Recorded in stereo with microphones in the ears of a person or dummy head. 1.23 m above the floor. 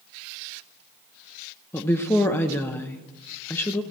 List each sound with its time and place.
1.7 s a woman speaking: 10° left (ahead or behind), 0.9 m